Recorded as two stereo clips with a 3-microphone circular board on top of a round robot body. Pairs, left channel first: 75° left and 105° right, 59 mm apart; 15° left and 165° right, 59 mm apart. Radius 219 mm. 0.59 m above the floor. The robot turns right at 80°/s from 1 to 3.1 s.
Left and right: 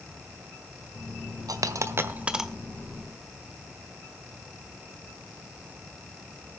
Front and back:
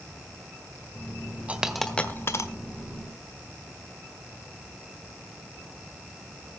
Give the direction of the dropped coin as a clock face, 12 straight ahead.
3 o'clock.